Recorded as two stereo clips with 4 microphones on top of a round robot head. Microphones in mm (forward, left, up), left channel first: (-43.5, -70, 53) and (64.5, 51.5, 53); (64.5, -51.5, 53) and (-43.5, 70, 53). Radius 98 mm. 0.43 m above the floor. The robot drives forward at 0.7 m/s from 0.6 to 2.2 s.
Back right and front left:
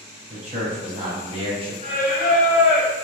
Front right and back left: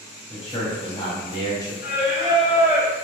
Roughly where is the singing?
Right.